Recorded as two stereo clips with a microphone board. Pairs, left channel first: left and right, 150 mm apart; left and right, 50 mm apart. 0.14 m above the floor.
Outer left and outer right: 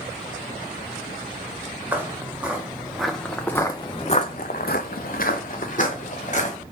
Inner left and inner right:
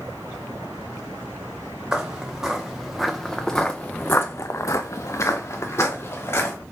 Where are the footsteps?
15° right (ahead or behind), 1.4 m; by 6.5 s 50° left (ahead or behind), 1.4 m.